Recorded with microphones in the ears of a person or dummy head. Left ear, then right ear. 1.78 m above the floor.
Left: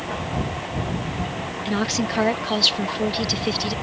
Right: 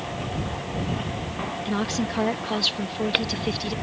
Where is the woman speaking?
10° left (ahead or behind).